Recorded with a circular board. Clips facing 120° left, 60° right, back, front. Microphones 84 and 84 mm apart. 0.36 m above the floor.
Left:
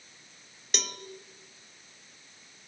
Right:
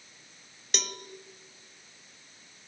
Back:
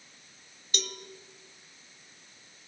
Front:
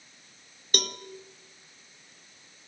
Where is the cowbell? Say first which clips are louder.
Even, front 6 dB; 30° left, 0.6 m.